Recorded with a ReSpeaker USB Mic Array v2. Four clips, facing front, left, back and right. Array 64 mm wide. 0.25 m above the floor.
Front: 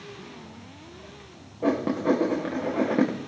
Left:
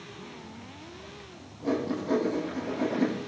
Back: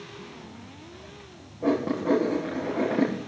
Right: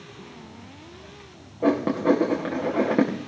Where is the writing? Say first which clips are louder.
Right 8 dB, front 1 dB; 75° right, 9.5 m.